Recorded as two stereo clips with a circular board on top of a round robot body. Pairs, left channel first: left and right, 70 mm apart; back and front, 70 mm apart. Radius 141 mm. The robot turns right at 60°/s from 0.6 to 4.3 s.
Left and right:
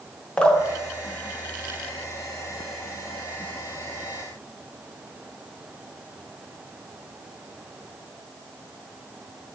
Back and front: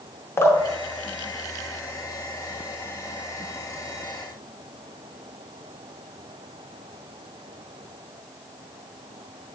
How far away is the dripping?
About 0.7 m.